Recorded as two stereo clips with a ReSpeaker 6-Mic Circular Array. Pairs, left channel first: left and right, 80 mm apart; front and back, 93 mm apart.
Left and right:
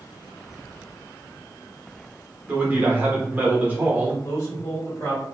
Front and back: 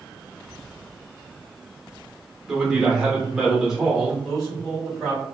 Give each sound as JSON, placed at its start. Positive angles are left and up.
{"t": 2.5, "sound": "a man speaking", "azimuth_deg": -110, "distance_m": 0.9}
{"t": 4.2, "sound": "a man speaking", "azimuth_deg": 95, "distance_m": 1.5}